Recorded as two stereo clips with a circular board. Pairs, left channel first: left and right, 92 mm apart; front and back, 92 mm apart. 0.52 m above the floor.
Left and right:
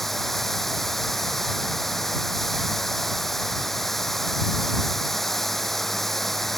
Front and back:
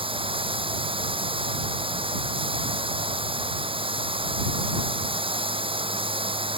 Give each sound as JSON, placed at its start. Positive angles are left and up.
{"t": 0.0, "sound": "running water", "azimuth_deg": 180}